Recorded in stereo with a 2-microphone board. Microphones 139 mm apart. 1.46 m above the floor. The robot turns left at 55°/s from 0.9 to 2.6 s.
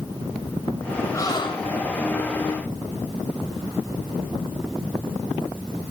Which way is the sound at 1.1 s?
155° left.